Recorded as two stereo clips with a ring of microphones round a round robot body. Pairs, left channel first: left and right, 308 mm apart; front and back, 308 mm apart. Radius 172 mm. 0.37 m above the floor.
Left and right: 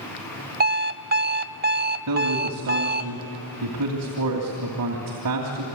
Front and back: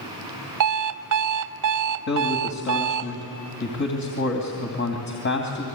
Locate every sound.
0.6 s an alarm clock: 150° right, 0.8 m
2.1 s a man speaking: 50° right, 3 m